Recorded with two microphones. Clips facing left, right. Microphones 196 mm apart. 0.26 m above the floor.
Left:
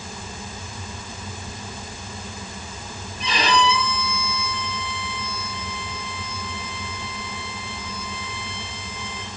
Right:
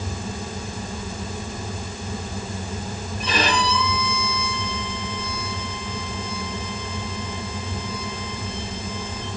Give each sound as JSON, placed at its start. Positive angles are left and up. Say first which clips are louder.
{"t": 3.2, "sound": "a violin", "louder": "left 2 dB", "side_deg": -55, "distance_m": 6.0}